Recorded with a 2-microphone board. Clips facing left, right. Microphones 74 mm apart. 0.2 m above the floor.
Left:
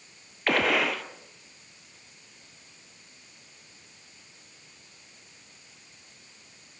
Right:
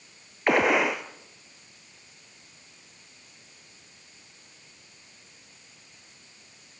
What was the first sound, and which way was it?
A gunshot, 20° right (ahead or behind).